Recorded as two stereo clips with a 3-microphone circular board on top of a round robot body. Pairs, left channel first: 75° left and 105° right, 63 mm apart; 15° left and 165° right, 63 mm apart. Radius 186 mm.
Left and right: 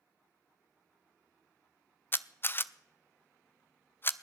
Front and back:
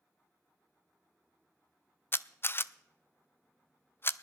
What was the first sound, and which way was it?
A camera shutter, 45° left.